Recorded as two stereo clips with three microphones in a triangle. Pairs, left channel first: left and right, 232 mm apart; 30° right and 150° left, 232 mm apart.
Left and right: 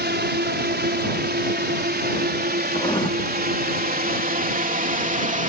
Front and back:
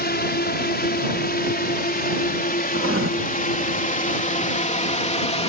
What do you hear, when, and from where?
0.0 s a drone: 60° right; by 5.5 s 70° right
2.7 s writing: 155° left